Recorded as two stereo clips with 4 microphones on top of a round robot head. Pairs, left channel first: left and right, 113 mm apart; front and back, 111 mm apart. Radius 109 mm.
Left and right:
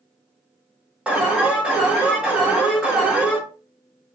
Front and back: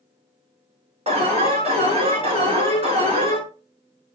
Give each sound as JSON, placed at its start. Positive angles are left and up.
{"t": 1.1, "sound": "an alarm", "azimuth_deg": -170, "distance_m": 2.0}